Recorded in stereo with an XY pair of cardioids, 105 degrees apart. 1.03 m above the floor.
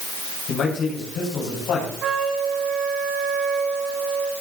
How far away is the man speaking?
About 5.5 m.